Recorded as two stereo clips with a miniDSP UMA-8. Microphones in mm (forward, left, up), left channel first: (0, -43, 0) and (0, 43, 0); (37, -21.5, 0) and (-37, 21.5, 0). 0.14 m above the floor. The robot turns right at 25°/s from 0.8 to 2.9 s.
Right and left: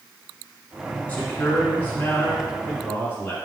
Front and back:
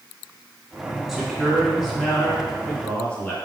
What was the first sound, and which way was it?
A man speaking, 130° right.